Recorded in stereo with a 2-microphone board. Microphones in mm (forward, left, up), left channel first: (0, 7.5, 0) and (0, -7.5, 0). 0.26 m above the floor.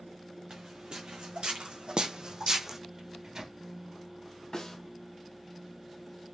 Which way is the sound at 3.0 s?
50° right (ahead or behind).